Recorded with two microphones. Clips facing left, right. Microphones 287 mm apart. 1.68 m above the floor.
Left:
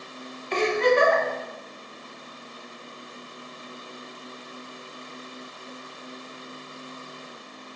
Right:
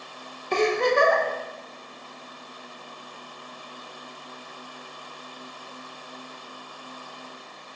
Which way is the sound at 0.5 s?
50° right (ahead or behind).